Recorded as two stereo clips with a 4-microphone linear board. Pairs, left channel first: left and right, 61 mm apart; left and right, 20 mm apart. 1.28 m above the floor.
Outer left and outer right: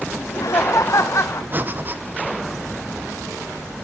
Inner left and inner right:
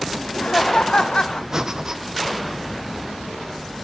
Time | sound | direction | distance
0.2 | laughter | 65° left (ahead or behind) | 0.9 m
1.5 | breathing | 30° right (ahead or behind) | 1.1 m